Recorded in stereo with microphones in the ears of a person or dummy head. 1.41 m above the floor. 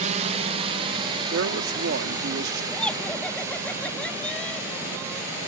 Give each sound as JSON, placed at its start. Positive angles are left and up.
{"t": 0.0, "sound": "a drone", "side_deg": -45}
{"t": 1.3, "sound": "a man speaking", "side_deg": -50}
{"t": 2.7, "sound": "laughter", "side_deg": 10}